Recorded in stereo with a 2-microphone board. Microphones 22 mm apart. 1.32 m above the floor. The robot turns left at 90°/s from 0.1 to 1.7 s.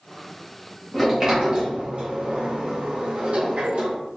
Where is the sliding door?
Centre (ahead or behind), 1.3 m; by 4.0 s 65° right (ahead or behind), 1.3 m.